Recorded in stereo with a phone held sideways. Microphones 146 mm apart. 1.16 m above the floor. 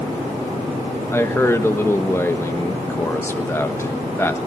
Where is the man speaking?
15° left (ahead or behind), 1.4 m.